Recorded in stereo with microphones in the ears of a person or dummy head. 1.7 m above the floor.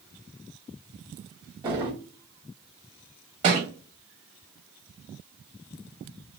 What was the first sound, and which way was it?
A drawer, 25° right (ahead or behind).